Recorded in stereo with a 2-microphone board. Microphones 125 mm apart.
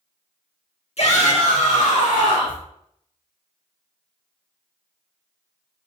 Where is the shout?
55° left (ahead or behind), 1.5 m; by 2.6 s 70° left (ahead or behind), 2 m.